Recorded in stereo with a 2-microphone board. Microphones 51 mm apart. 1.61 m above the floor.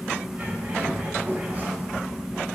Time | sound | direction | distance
0.4 | a bird | 35° right (ahead or behind) | 1.8 m